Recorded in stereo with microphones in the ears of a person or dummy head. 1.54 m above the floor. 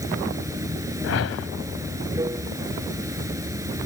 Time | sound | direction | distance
0.0 | running water | 15° right (ahead or behind) | ?
1.0 | a whoosh | 75° left (ahead or behind) | ?